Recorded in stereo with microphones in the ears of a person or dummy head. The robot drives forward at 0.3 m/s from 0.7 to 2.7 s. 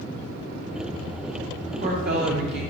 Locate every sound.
1.7 s a woman speaking: 40° right (ahead or behind), 0.7 m; by 2.6 s 60° right (ahead or behind), 0.5 m